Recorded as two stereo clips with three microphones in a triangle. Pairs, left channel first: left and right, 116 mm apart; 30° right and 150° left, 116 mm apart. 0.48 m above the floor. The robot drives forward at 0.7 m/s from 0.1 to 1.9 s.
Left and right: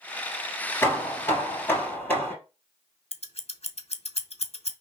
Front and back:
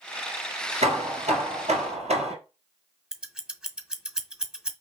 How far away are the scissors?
About 0.8 m.